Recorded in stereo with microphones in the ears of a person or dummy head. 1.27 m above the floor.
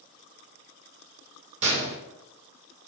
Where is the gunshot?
40° right (ahead or behind), 1.7 m.